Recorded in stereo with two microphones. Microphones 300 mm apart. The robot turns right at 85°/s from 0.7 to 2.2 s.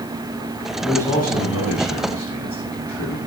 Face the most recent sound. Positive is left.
turn(degrees=110)